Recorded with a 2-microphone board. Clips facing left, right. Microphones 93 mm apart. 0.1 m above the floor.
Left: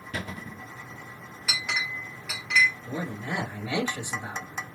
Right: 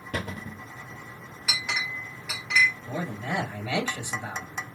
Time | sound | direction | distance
0.1 | a cupboard door | 55° right (ahead or behind) | 0.8 m
1.5 | a clink | 5° right (ahead or behind) | 1.5 m
2.9 | a man speaking | 15° left (ahead or behind) | 2 m